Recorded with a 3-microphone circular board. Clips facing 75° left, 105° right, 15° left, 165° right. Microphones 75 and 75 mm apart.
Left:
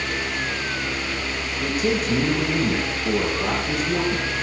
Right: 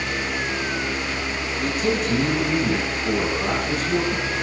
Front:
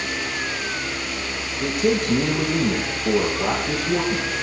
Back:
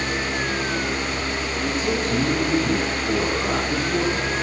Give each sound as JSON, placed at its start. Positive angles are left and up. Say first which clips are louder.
{"t": 1.6, "sound": "a man speaking", "louder": "even, front 5 dB", "azimuth_deg": 0, "distance_m": 9.5}